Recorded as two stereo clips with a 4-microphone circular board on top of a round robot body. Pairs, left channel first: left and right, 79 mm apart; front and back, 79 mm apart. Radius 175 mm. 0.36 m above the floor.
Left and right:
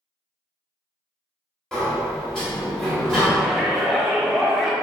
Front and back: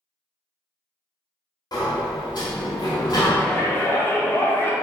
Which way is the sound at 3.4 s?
Straight ahead.